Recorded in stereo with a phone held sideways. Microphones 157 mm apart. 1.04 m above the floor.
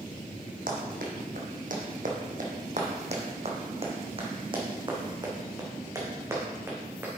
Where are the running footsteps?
65° right (ahead or behind), 2.5 m; by 7.1 s 15° right (ahead or behind), 3.5 m.